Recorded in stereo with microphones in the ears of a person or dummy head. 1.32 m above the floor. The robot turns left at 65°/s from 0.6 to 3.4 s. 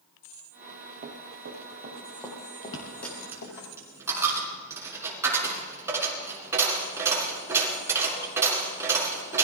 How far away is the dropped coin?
About 4 m.